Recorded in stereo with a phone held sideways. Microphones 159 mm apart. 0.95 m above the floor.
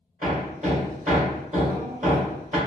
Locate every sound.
0.2 s hammering: 50° right (ahead or behind), 1.8 m